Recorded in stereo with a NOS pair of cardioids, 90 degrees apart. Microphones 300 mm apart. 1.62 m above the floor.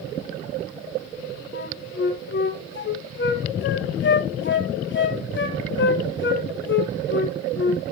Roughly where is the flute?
Ahead left.